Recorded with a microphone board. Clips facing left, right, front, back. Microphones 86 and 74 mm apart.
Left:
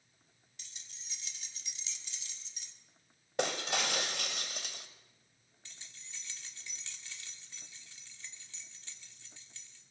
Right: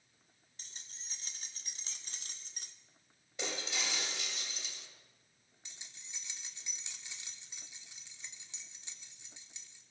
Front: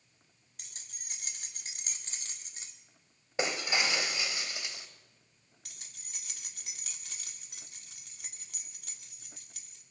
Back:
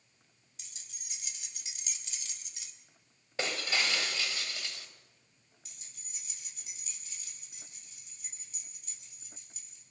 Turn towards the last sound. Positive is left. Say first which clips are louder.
# left 1 dB, front 4 dB
turn(degrees=-20)